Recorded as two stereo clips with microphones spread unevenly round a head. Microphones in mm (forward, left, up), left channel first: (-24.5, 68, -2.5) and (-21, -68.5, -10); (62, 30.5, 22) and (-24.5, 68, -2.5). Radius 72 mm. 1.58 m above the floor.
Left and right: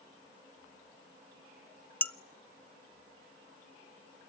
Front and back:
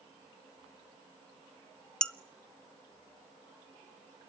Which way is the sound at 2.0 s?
25° left.